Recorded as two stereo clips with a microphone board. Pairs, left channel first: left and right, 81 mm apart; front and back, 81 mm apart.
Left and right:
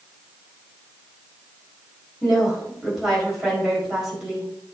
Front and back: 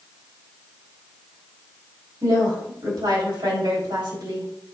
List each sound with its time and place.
2.2 s a woman speaking: 170° right, 3.5 m